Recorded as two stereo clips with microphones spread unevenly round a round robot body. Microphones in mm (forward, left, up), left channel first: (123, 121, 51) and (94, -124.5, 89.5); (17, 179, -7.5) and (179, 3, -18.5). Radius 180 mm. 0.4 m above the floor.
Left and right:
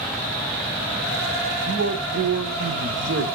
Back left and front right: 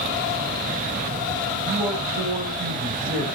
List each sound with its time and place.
1.6 s a man speaking: 85° right, 1.3 m